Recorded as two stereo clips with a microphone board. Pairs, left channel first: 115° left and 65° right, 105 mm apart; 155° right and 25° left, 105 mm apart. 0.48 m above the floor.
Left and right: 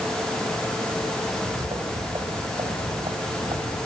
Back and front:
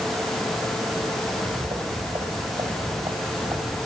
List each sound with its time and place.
1.3 s footsteps: 5° right, 4.5 m; by 3.9 s 15° right, 6 m